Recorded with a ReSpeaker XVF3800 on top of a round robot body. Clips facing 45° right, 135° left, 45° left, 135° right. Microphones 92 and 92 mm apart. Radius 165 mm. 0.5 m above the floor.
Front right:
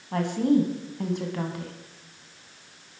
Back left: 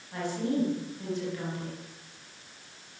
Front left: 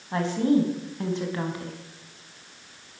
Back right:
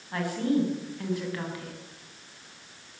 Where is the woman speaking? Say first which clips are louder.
Front right 8 dB, front left 4 dB; 20° right, 5.5 m.